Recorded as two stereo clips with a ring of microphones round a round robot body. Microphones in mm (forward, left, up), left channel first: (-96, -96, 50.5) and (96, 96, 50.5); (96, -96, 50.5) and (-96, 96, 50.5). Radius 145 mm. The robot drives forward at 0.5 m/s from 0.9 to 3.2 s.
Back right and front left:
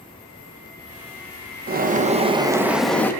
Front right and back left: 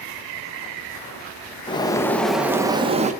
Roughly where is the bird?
Ahead.